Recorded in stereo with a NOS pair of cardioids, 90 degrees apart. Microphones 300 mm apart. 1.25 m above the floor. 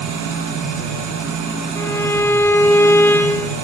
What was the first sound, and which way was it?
An engine running, 70° right.